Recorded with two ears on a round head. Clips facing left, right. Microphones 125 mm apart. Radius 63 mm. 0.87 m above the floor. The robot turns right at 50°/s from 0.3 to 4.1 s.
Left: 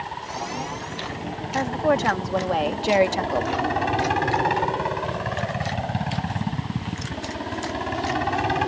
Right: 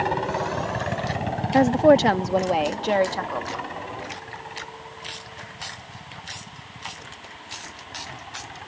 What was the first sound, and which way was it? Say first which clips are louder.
A helicopter: right 7 dB; 105° right.